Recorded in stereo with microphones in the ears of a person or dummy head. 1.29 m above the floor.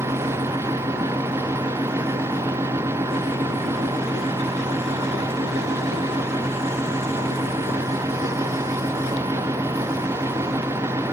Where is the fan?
15° right (ahead or behind), 0.8 m.